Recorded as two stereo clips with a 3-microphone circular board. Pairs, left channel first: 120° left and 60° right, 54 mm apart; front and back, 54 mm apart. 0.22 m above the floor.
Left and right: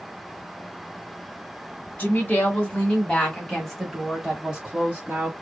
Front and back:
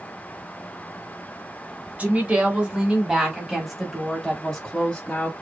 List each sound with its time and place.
2.0 s a woman speaking: 150° left, 1.7 m; by 5.3 s 45° right, 1.6 m